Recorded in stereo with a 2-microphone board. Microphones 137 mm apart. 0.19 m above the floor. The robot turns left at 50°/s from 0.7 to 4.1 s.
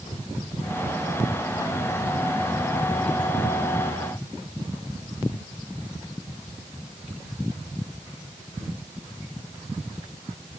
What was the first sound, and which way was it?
Only background noise.